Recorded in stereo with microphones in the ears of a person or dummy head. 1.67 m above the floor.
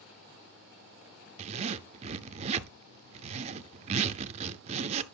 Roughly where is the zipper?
Right.